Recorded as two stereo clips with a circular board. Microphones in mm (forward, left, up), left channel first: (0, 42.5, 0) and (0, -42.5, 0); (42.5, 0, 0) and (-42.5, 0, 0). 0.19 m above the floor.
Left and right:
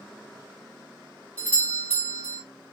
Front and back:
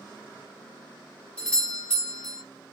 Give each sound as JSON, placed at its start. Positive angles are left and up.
{"t": 1.4, "sound": "a doorbell", "azimuth_deg": 45, "distance_m": 1.9}